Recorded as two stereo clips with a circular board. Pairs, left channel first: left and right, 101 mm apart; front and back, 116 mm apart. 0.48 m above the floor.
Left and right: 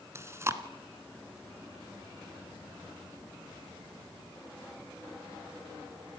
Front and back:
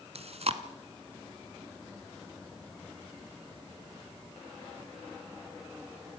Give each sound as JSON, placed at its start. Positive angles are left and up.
{"t": 0.1, "sound": "chewing", "azimuth_deg": -155, "distance_m": 1.6}